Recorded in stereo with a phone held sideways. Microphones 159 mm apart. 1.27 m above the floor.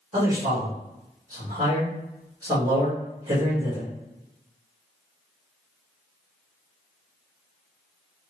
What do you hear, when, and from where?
0.1 s a man speaking: 25° right (ahead or behind), 1.9 m